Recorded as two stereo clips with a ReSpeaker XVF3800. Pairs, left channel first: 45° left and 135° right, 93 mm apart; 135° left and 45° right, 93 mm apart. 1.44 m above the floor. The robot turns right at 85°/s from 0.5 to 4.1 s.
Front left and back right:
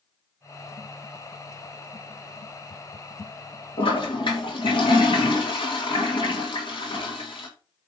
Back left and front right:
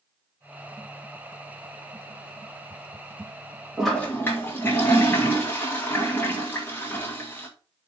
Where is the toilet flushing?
40° left, 2.5 m; by 7.5 s 70° left, 2.5 m.